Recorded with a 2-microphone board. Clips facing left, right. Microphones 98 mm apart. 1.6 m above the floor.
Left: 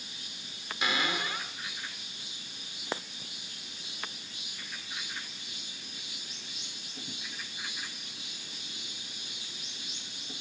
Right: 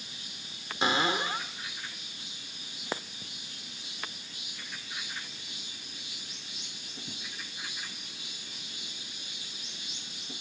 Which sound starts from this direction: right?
A cupboard door, at 0.8 s.